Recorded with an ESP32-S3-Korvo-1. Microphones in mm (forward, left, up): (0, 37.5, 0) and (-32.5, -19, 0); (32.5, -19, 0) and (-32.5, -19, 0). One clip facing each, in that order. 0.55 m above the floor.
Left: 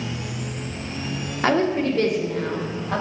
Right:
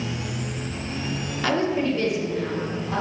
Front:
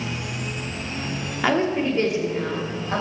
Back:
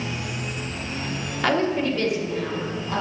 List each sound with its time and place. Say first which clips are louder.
1.4 s a woman speaking: left 3 dB, front 1 dB; 75° left, 1.1 m; by 3.0 s 50° left, 2.5 m